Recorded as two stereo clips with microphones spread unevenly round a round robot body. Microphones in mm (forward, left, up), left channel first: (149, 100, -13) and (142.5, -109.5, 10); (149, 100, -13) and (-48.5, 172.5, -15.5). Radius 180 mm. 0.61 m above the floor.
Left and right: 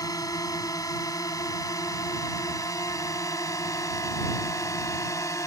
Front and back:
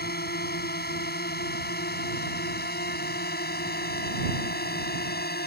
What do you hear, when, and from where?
0.0 s a drone: 15° left